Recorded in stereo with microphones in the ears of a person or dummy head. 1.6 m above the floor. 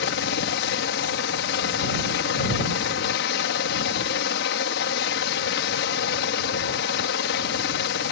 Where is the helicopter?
65° left (ahead or behind).